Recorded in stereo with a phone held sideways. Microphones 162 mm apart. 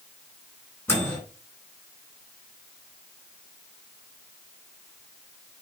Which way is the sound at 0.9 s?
15° left (ahead or behind).